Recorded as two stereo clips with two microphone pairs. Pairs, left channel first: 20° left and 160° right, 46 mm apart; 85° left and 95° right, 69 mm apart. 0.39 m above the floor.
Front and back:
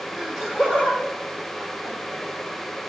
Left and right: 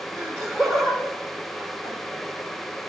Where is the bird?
No bird in this recording.